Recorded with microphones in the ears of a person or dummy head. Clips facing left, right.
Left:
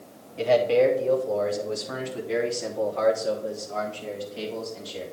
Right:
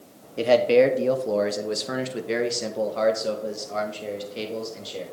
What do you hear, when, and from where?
0.4 s a man speaking: 55° right (ahead or behind), 0.9 m; by 5.0 s 35° right (ahead or behind), 2.5 m